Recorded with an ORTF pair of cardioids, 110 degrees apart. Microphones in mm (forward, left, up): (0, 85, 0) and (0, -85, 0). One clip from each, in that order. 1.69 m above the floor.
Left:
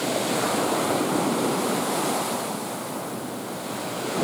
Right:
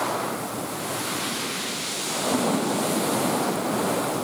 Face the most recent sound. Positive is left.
No sound to turn to.